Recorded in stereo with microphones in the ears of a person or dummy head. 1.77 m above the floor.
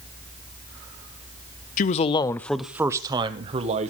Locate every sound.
1.8 s a man speaking: 50° left (ahead or behind), 0.7 m; by 3.9 s 40° right (ahead or behind), 1.3 m